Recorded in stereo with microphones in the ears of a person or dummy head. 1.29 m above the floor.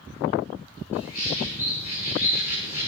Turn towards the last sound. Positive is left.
turn(degrees=45)  # may be behind; listen again after turning